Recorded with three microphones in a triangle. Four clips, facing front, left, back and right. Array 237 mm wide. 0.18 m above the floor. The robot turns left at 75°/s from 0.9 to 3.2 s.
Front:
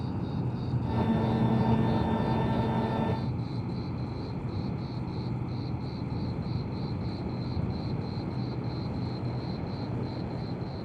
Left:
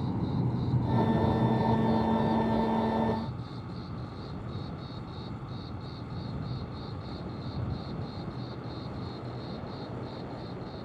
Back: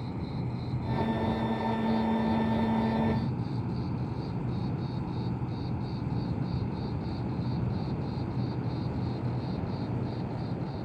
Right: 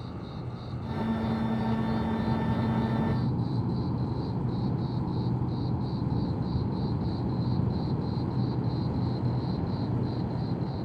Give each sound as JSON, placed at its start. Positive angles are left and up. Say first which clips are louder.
{"t": 0.0, "sound": "an insect", "louder": "left 7 dB, front 2 dB", "azimuth_deg": 80}